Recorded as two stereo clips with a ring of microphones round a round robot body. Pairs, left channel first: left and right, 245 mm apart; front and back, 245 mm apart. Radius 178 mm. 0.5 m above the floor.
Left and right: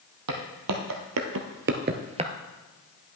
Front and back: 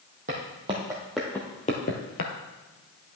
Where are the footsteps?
110° right, 1.2 m; by 2.3 s 20° right, 0.7 m.